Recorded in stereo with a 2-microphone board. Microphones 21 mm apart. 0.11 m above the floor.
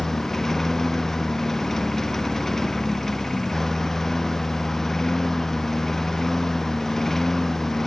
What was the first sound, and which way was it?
A lawn mower, 15° left (ahead or behind).